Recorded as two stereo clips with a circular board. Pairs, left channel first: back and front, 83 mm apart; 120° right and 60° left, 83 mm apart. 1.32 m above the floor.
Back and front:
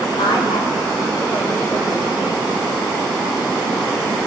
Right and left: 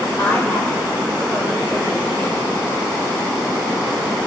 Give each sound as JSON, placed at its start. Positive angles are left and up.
{"t": 0.2, "sound": "a woman speaking", "azimuth_deg": 170, "distance_m": 6.0}